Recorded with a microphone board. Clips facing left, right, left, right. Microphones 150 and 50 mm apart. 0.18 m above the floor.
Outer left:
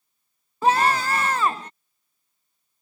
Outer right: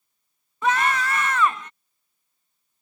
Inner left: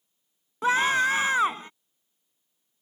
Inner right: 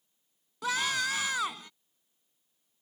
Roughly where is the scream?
Left.